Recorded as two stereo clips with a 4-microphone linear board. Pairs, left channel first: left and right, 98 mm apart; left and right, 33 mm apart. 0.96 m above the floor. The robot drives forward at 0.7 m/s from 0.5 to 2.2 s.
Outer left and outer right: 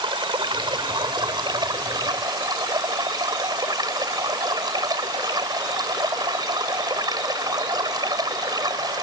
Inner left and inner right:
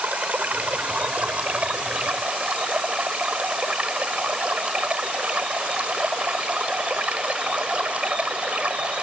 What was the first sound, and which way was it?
Running water, 50° right (ahead or behind).